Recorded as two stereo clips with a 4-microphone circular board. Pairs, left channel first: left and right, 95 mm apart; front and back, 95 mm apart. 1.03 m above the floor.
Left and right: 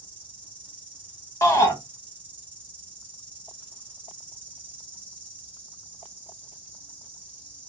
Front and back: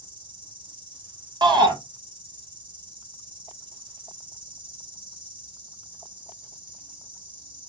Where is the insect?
160° right, 1.4 m.